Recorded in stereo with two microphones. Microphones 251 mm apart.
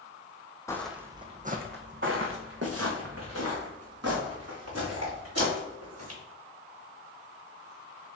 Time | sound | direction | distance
0.7 | footsteps | 10° left (ahead or behind) | 0.5 m